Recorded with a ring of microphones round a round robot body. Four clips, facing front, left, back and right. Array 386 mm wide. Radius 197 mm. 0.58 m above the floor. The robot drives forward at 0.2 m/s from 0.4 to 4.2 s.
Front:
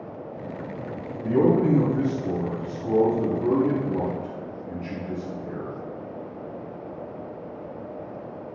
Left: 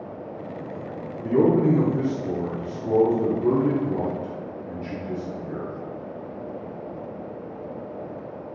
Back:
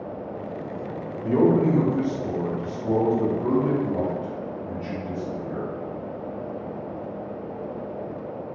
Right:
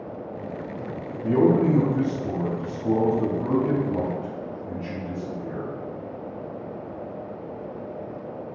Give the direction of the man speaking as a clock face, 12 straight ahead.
5 o'clock.